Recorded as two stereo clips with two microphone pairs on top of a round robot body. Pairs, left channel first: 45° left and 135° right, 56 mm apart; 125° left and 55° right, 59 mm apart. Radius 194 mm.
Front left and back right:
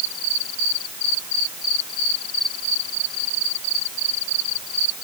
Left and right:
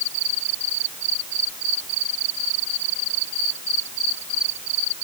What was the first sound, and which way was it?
Only background noise.